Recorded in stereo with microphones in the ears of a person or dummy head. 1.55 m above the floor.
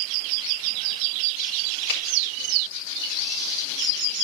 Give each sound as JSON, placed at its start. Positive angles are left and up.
{"t": 1.9, "sound": "a finger snap", "side_deg": 60, "distance_m": 5.5}